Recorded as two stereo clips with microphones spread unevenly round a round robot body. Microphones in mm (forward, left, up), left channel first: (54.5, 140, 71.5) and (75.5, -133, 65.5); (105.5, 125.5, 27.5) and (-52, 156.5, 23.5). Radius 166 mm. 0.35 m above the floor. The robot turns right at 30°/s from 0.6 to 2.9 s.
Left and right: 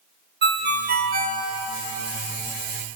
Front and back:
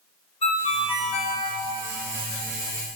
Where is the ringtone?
55° right, 1.0 m; by 1.4 s 30° right, 1.0 m.